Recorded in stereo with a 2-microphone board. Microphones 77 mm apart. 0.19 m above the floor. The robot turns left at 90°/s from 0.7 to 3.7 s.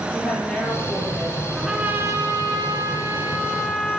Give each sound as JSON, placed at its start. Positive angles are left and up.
{"t": 0.1, "sound": "a woman speaking", "azimuth_deg": 10, "distance_m": 4.5}
{"t": 1.6, "sound": "a trumpet", "azimuth_deg": 0, "distance_m": 1.6}